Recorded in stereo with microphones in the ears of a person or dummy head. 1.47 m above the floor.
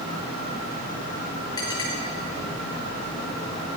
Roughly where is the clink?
Left.